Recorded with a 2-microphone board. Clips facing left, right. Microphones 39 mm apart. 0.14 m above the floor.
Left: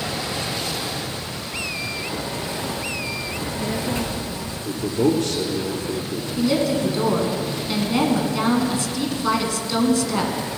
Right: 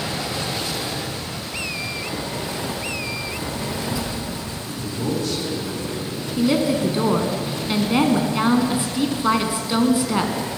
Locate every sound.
3.3 s a child speaking: 45° left (ahead or behind), 1.6 m
4.6 s a man speaking: 65° left (ahead or behind), 3 m
6.4 s a woman speaking: 20° right (ahead or behind), 1.5 m